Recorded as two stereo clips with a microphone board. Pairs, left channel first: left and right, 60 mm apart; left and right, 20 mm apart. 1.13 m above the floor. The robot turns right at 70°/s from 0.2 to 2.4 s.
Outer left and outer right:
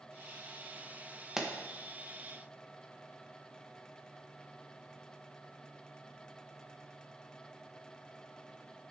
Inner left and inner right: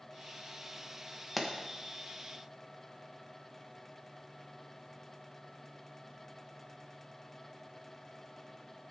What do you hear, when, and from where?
1.4 s a pop: 10° right (ahead or behind), 0.9 m; by 1.5 s centre (ahead or behind), 0.9 m